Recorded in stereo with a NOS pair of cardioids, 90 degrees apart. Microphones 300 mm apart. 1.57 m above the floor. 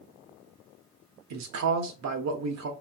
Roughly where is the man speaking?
Ahead right.